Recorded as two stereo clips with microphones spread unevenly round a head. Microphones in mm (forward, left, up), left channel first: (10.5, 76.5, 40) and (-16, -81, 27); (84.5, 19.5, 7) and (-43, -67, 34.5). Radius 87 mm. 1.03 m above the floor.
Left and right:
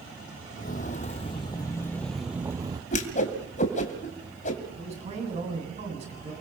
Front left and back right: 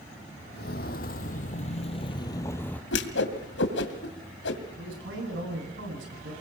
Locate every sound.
0.5 s footsteps: 65° left, 1.6 m; by 2.8 s 60° right, 1.1 m
2.9 s a whoosh: 35° left, 2.5 m
4.8 s a man speaking: 150° right, 9 m